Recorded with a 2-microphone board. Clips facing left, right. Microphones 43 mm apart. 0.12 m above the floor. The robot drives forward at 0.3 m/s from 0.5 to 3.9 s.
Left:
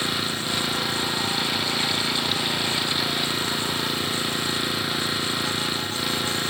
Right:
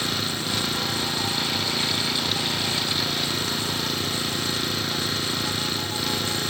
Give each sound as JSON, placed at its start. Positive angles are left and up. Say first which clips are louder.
{"t": 0.0, "sound": "an engine running", "louder": "left 1 dB", "side_deg": 10}